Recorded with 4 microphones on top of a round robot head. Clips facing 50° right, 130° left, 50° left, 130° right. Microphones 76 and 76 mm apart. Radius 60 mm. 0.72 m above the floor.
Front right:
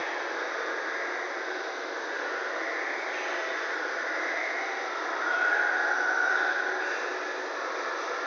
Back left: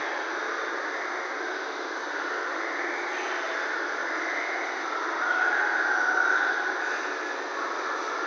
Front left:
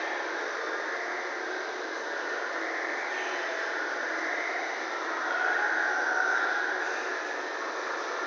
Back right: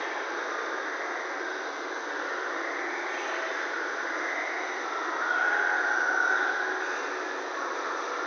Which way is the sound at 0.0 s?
170° right.